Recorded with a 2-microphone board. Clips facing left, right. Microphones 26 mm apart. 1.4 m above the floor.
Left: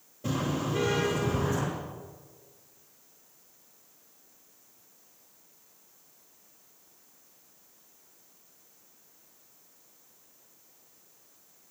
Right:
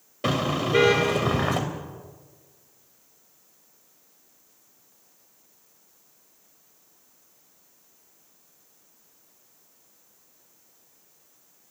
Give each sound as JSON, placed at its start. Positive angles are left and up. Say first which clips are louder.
{"t": 0.2, "sound": "a car horn", "louder": "right 6 dB", "side_deg": -75, "distance_m": 3.5}